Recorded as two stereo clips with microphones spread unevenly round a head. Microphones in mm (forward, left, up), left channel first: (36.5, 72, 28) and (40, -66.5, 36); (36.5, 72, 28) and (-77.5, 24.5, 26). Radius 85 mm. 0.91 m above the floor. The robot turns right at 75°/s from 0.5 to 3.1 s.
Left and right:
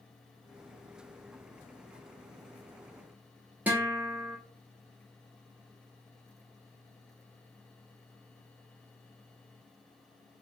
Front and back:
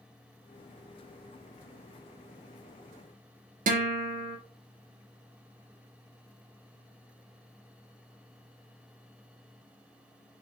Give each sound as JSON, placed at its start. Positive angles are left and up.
{"t": 3.7, "sound": "a guitar", "azimuth_deg": -170, "distance_m": 0.6}